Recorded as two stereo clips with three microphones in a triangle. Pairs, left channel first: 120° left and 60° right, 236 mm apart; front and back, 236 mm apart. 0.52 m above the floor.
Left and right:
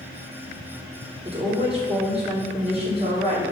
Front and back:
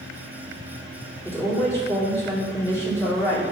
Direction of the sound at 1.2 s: 60° right.